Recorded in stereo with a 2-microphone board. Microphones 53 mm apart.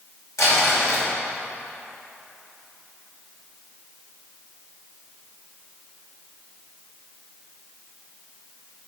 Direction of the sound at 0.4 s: 75° left (ahead or behind).